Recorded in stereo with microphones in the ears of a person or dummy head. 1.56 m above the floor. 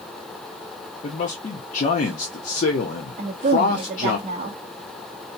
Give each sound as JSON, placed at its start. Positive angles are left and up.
{"t": 1.0, "sound": "a man speaking", "side_deg": 45, "distance_m": 0.8}
{"t": 3.2, "sound": "a woman speaking", "side_deg": -35, "distance_m": 0.6}